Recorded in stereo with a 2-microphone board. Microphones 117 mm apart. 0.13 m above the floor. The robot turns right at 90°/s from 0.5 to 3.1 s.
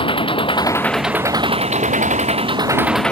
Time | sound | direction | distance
0.0 | an engine running | 135° left | ?